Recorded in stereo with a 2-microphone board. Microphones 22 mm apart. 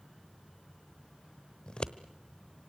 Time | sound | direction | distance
1.7 | scissors | 45° left (ahead or behind) | 1.0 m